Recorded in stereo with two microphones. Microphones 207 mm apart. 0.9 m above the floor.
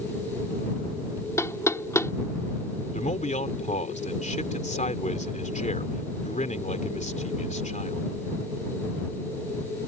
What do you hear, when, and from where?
1.4 s knocking: 15° left (ahead or behind)
2.9 s a man speaking: 35° left (ahead or behind)